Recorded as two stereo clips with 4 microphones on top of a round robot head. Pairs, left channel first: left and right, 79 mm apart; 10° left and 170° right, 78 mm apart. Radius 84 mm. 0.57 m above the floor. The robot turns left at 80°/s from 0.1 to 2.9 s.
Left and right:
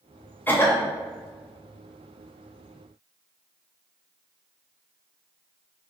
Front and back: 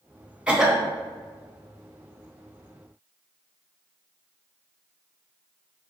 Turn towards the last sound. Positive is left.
turn(degrees=-70)